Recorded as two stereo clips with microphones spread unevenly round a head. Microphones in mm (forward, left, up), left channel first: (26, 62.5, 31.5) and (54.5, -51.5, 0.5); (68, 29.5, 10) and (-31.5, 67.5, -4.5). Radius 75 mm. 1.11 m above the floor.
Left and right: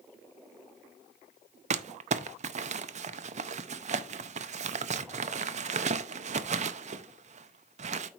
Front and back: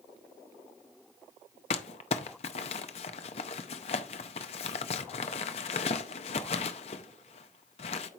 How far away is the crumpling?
About 0.6 m.